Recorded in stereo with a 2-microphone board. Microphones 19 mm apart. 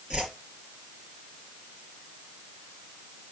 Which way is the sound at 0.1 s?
60° right (ahead or behind).